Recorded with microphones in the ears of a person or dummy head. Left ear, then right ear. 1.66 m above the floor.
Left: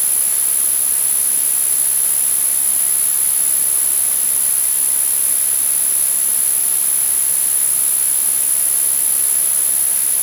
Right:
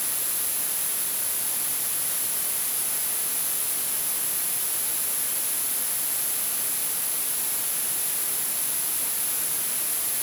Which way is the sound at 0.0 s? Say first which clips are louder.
Left 8 dB; 50° left (ahead or behind).